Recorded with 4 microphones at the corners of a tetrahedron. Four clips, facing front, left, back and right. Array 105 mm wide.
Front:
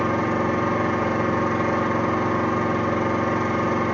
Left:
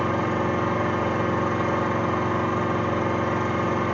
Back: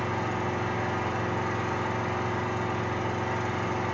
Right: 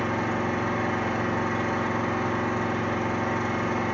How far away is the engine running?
About 1.9 m.